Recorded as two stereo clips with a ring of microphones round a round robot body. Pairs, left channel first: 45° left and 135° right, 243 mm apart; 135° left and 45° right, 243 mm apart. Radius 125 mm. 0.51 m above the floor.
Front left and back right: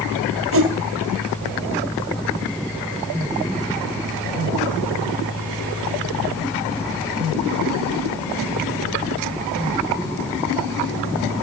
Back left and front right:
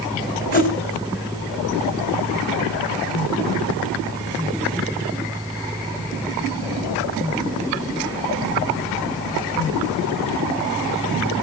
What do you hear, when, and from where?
0.5 s a whoosh: 170° right, 3.5 m